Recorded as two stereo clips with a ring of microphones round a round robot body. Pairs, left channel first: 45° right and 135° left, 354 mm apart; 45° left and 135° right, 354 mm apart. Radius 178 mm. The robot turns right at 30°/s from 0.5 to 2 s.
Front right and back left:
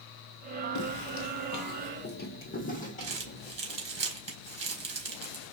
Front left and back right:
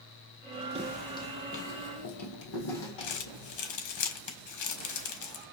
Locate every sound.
0.8 s footsteps: 65° right, 0.7 m; by 3.6 s 30° left, 2 m
3.0 s crumpling: 65° left, 4.5 m